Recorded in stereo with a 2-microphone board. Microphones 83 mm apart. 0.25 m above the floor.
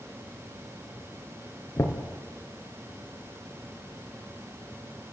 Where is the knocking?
35° left (ahead or behind), 3 m.